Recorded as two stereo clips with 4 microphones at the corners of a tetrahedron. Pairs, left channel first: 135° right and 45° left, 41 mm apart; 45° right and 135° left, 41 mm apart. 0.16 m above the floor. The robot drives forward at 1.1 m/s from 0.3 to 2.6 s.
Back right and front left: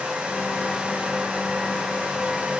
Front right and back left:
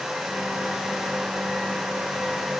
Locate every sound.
Only background noise.